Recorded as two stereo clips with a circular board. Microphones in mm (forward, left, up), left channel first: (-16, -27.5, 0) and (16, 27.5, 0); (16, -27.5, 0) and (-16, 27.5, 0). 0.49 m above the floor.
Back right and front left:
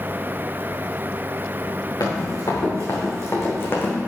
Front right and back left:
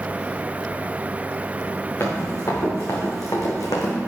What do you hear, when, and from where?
2.0 s running footsteps: 105° right, 3.5 m; by 4.0 s 60° right, 2 m